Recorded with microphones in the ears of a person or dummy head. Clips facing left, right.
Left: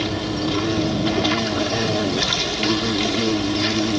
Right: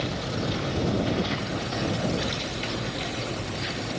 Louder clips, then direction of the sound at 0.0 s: Left 7 dB; 80° left.